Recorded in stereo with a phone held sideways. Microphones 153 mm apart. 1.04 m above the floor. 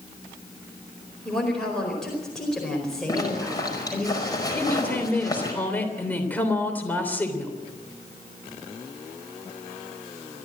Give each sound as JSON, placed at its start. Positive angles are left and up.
{"t": 1.2, "sound": "a woman speaking", "side_deg": 5, "distance_m": 4.5}
{"t": 3.1, "sound": "a zipper", "side_deg": 25, "distance_m": 5.0}
{"t": 4.5, "sound": "a woman speaking", "side_deg": 10, "distance_m": 3.0}